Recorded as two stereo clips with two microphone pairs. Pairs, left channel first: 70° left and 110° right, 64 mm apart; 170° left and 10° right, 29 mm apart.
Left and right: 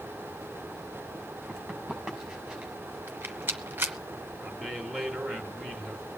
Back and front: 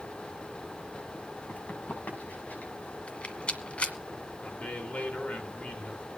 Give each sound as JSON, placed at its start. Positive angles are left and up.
{"t": 1.5, "sound": "running footsteps", "azimuth_deg": 165, "distance_m": 7.5}
{"t": 3.1, "sound": "a rattle", "azimuth_deg": -165, "distance_m": 1.5}
{"t": 4.4, "sound": "a man speaking", "azimuth_deg": 155, "distance_m": 3.0}